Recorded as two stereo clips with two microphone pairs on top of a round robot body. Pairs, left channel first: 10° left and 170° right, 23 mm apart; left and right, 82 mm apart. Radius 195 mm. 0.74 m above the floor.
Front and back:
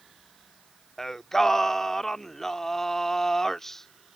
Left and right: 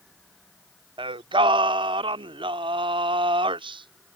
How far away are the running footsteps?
I don't hear running footsteps.